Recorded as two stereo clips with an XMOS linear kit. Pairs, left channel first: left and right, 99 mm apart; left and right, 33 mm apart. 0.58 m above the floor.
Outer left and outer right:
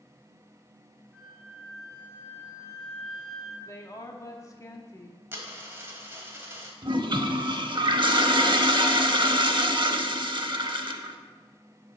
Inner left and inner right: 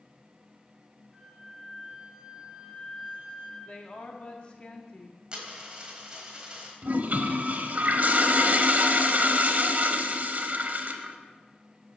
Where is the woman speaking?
30° left (ahead or behind), 0.9 m.